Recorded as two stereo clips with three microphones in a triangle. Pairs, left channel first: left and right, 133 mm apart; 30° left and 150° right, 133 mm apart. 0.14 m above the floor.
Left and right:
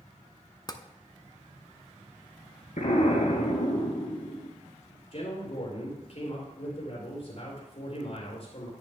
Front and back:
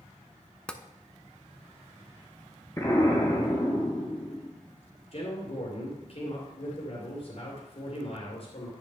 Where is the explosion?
95° left, 2.5 m.